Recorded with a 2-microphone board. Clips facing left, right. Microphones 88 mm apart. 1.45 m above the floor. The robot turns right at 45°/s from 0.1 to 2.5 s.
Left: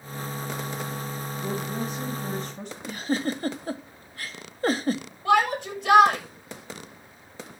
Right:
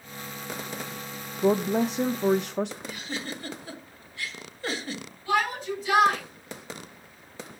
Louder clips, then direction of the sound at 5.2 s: Left 5 dB; 65° left (ahead or behind).